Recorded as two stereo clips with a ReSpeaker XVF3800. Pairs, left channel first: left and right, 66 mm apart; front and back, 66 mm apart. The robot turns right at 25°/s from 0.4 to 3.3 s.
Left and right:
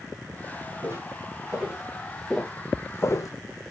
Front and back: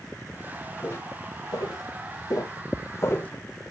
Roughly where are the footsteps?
Ahead right.